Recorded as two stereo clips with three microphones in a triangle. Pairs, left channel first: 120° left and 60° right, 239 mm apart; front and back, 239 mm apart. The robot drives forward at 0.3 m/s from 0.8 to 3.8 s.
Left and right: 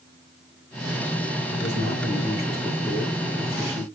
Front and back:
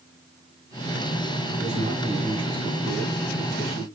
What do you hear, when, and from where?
1.5 s a man speaking: 160° left, 3 m; by 3.9 s 165° left, 3.5 m